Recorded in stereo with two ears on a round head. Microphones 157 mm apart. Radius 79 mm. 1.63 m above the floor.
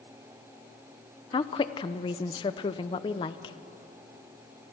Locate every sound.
1.3 s a woman speaking: 25° left (ahead or behind), 0.8 m